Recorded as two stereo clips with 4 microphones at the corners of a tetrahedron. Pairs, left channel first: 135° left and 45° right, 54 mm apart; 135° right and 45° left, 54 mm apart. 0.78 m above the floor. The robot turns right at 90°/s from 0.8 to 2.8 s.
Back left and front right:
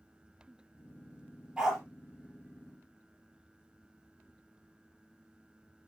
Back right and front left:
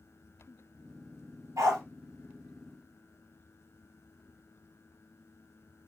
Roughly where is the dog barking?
Ahead left.